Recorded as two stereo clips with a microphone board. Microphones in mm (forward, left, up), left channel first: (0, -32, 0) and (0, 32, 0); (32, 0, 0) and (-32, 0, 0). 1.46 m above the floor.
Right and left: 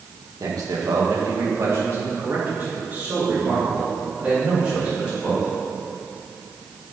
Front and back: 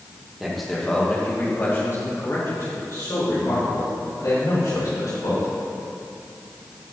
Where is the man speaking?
95° left, 2 m; by 5.5 s 10° left, 6.5 m.